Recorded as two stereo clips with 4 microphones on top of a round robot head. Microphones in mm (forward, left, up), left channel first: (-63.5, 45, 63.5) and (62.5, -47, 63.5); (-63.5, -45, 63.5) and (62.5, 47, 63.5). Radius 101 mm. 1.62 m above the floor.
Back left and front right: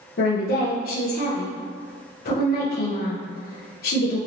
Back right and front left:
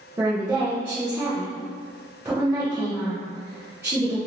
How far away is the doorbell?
No doorbell in this recording.